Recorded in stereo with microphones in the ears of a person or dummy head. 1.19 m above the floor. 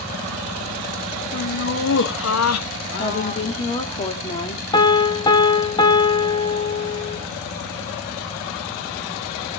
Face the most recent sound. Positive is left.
turn(degrees=25)  # may be behind; listen again after turning